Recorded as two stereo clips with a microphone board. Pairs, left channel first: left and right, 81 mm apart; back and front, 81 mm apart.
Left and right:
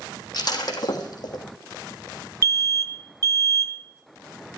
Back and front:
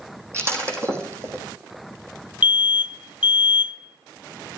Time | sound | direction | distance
0.3 | breaking glass | 55° left | 2.5 m
2.4 | an alarm | 70° right | 1.2 m